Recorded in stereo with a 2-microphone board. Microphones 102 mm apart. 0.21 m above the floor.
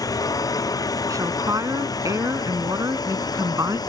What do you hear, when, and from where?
0.0 s a drone: 35° left (ahead or behind); by 3.9 s 40° left (ahead or behind)
1.1 s a woman speaking: 35° right (ahead or behind)